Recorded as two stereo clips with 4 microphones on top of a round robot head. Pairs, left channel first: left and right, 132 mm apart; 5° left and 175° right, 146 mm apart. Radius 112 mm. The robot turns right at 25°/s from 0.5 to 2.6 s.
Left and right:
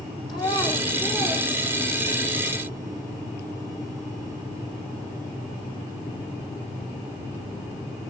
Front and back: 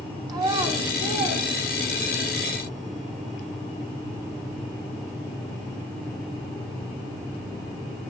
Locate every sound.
0.3 s a child speaking: 145° left, 0.5 m; by 2.3 s 170° right, 0.5 m